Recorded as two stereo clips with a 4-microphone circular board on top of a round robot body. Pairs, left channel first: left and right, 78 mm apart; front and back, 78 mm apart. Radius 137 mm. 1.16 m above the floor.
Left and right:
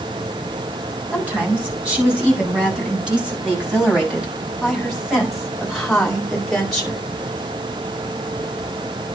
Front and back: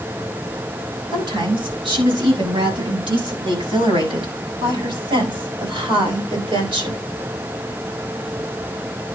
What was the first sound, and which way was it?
A woman speaking, 165° right.